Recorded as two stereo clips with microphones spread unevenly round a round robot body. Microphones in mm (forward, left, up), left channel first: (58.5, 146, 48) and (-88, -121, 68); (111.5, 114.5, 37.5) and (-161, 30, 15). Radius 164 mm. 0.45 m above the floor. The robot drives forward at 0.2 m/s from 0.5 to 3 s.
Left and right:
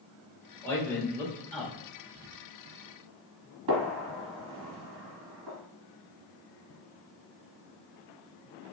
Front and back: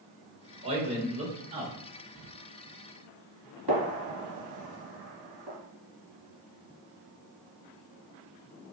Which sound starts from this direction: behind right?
A gunshot, at 3.7 s.